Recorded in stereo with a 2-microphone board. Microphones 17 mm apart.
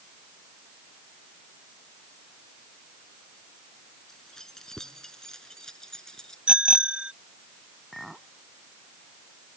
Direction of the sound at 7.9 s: 5° right (ahead or behind).